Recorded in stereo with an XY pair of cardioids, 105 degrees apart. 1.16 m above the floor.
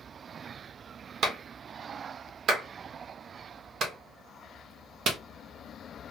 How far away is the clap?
About 1.0 m.